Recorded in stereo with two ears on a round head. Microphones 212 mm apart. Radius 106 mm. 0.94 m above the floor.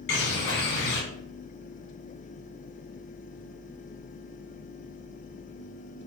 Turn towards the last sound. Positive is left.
turn(degrees=50)  # may be behind; listen again after turning